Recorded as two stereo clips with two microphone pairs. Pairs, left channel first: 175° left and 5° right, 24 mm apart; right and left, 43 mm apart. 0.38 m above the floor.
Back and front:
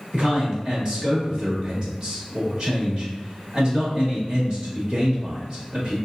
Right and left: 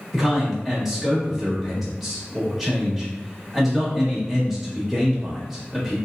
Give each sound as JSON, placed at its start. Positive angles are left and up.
{"t": 0.1, "sound": "a man speaking", "azimuth_deg": 5, "distance_m": 1.0}